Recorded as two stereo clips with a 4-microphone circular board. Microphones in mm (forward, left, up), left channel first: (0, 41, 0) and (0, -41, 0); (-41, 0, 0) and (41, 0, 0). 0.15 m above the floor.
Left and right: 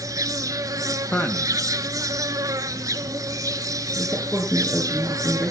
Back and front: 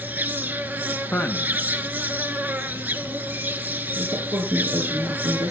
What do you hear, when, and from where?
0.0 s an insect: 60° right, 1.0 m
1.1 s a man speaking: 140° left, 1.1 m
4.0 s a woman speaking: straight ahead, 2.5 m